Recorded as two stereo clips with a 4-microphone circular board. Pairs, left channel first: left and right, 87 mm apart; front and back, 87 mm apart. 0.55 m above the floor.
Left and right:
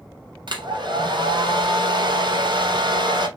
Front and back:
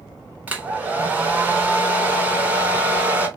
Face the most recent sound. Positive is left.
turn(degrees=-110)